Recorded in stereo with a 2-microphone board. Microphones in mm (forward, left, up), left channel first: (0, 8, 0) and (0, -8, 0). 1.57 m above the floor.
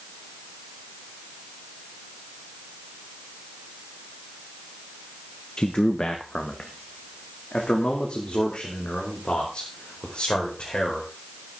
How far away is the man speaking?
About 1.0 m.